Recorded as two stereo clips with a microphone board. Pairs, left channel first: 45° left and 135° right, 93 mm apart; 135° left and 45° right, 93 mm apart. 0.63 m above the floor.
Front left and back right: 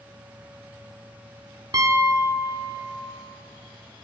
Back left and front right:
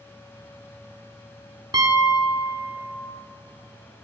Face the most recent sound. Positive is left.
turn(degrees=-85)